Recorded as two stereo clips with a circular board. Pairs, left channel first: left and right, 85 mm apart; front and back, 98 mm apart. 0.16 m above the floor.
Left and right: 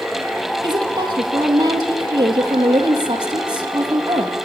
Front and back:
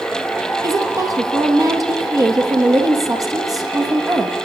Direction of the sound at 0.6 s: 125° right.